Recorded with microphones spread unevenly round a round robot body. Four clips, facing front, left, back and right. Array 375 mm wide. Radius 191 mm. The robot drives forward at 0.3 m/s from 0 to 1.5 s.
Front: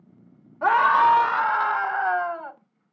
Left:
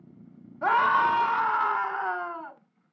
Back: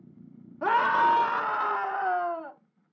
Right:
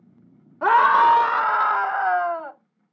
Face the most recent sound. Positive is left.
turn(degrees=-130)